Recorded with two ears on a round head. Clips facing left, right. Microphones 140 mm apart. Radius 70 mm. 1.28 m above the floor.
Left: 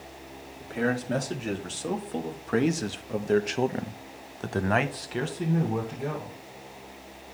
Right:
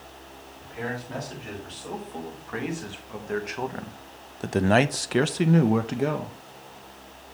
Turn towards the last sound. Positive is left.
turn(degrees=-85)